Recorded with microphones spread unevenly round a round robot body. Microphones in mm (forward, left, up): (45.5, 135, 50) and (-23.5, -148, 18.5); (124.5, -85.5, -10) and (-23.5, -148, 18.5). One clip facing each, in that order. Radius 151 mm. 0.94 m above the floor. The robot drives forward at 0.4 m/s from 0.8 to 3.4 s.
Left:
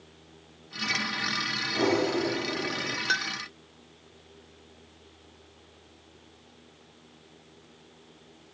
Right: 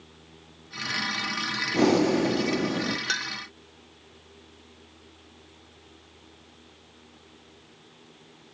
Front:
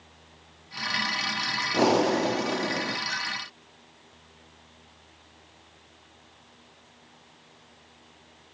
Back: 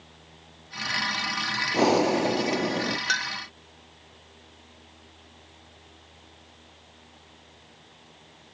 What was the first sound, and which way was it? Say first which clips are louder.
Breathing: right 5 dB, back 1 dB; 70° right.